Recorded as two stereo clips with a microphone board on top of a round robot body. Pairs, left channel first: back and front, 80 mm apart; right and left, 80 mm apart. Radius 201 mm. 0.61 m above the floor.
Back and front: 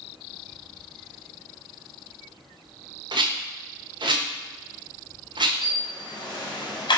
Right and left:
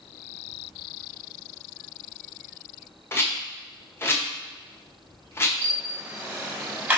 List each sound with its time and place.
3.1 s a rattle: 25° right, 1.2 m
5.6 s a camera shutter: 160° left, 3 m